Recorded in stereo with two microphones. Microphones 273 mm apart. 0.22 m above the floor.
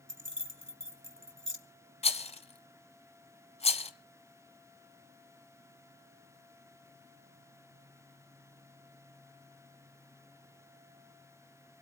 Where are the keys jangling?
50° right (ahead or behind), 1.4 m.